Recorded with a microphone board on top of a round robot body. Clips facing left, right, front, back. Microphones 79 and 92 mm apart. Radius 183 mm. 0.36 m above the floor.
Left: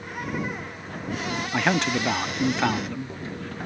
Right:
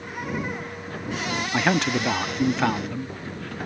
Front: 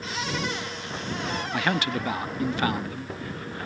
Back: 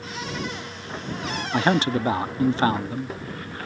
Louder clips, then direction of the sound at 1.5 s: Right 1 dB, back 7 dB; 175° right.